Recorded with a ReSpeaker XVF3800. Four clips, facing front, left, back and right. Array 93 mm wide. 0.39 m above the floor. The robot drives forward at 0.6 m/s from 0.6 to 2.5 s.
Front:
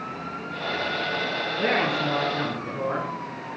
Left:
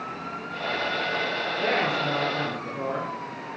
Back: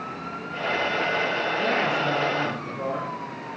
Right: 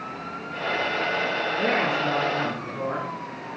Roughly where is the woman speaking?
Ahead right.